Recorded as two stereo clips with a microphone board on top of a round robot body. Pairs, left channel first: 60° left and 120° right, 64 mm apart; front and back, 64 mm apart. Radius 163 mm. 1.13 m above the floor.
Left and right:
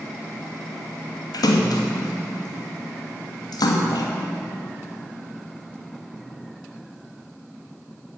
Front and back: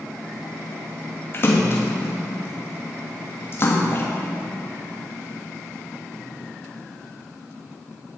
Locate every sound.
1.3 s a splash: 55° left, 1.3 m